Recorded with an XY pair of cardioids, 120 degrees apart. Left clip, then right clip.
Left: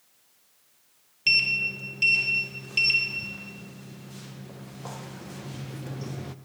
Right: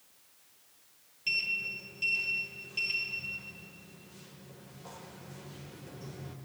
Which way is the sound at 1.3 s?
65° left.